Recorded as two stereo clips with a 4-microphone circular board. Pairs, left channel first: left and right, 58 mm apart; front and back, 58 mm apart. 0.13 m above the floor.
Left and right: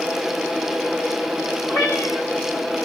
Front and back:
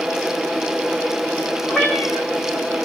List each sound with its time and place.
1.7 s a cat meowing: 70° left, 2 m